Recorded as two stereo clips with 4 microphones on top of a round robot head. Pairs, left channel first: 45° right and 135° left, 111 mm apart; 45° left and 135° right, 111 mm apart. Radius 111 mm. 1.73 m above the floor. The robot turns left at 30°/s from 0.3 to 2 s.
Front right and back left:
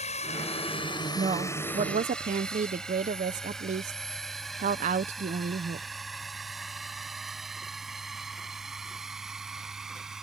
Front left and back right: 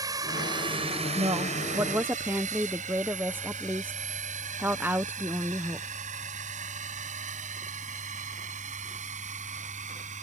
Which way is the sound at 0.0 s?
75° right.